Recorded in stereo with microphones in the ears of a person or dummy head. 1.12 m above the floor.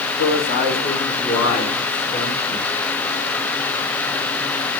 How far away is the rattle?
I don't hear a rattle.